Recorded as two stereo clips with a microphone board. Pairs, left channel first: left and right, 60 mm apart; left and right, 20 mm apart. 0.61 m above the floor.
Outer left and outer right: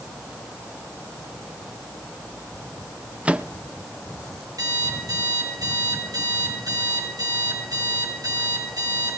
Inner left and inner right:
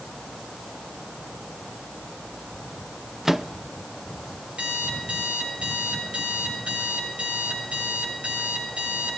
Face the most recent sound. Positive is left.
turn(degrees=-85)